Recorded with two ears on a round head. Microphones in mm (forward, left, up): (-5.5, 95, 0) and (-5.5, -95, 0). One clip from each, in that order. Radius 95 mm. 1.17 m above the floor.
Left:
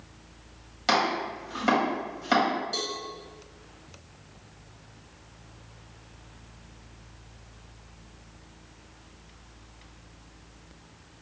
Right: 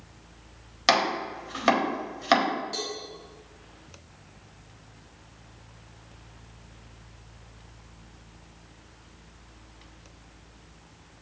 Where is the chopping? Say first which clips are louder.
Right 2 dB; 45° right (ahead or behind), 1.2 m.